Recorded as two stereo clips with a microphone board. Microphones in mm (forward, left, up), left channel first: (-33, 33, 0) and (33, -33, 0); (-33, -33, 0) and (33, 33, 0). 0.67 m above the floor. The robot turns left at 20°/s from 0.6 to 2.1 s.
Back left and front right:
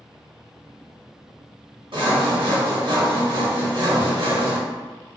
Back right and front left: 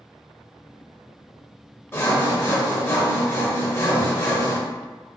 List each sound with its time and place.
1.9 s sawing: 70° right, 1.5 m; by 4.6 s 75° right, 1.5 m